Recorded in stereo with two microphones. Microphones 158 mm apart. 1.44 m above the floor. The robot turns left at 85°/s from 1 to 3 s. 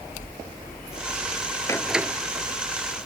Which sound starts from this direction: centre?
A door slam, at 1.7 s.